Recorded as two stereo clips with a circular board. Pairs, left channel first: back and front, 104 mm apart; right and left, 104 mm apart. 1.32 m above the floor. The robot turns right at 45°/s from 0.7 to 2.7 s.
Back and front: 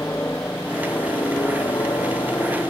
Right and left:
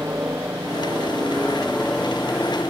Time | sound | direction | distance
0.0 | a helicopter | 135° left | ?